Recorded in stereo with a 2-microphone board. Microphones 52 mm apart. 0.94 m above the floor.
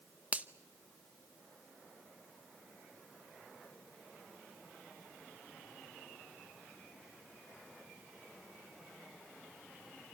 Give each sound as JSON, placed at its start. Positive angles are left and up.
{"t": 0.3, "sound": "a finger snap", "side_deg": -30, "distance_m": 0.8}